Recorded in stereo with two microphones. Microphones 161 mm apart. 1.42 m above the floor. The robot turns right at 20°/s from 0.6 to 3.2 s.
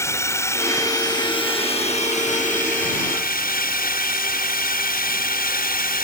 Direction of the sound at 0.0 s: 15° left.